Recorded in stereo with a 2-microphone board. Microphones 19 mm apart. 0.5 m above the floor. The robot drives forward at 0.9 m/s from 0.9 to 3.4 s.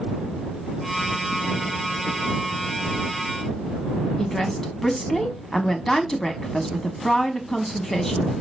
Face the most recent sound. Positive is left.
turn(degrees=25)  # may be behind; listen again after turning